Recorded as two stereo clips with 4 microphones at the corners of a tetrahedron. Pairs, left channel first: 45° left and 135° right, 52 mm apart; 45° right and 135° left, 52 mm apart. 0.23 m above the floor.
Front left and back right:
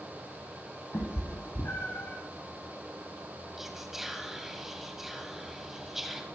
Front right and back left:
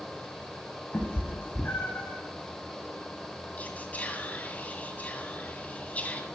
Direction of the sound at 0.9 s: 5° left.